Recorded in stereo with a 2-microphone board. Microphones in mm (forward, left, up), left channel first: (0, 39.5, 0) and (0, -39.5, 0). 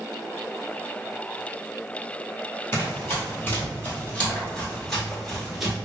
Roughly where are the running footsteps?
Left.